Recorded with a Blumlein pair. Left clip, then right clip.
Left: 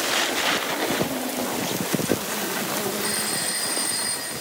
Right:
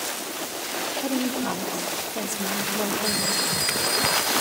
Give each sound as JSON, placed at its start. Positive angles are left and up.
{"t": 1.0, "sound": "a woman speaking", "azimuth_deg": -10, "distance_m": 3.0}
{"t": 3.0, "sound": "a phone ringing", "azimuth_deg": 70, "distance_m": 9.5}